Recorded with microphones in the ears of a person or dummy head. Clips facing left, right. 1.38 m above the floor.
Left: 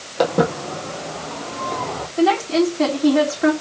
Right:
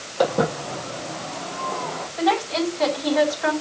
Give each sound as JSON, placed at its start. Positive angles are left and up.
{"t": 0.2, "sound": "footsteps", "side_deg": 30, "distance_m": 2.5}
{"t": 2.2, "sound": "a woman speaking", "side_deg": 45, "distance_m": 4.5}